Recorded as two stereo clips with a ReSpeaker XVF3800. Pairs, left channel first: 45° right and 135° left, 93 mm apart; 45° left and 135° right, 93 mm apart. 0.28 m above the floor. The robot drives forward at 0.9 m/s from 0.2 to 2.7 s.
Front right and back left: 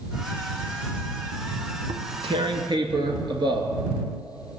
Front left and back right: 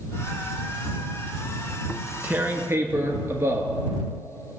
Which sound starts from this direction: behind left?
Tearing paper, at 1.9 s.